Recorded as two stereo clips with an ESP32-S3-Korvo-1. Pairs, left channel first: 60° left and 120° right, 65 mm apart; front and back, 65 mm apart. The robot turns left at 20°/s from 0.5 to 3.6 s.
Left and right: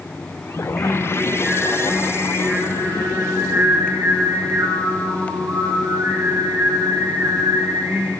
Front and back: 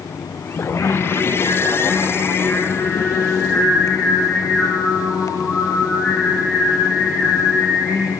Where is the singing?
25° right, 5.5 m; by 8.1 s 85° right, 5.5 m.